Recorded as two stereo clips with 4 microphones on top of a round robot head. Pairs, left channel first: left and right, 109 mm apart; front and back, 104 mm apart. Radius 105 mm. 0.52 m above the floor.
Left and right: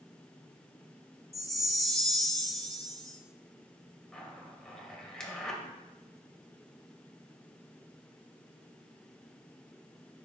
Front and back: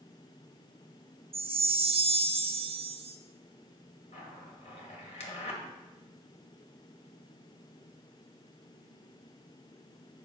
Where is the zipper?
5° left, 2.5 m.